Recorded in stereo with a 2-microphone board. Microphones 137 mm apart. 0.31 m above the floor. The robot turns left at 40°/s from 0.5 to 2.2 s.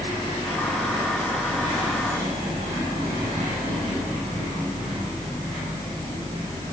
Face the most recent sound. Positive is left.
No sound to turn to.